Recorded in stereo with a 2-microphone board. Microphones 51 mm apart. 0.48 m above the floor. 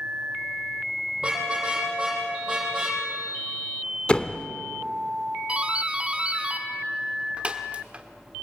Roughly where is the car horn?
Centre.